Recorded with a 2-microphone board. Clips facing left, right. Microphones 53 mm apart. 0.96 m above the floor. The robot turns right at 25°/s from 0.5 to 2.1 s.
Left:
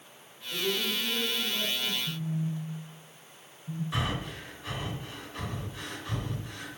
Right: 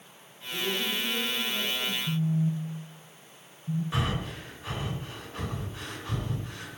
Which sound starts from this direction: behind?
A man speaking, at 0.5 s.